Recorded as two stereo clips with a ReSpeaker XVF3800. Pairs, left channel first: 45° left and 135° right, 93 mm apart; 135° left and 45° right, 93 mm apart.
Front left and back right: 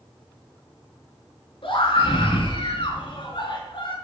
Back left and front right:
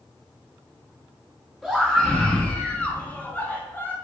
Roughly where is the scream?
Ahead left.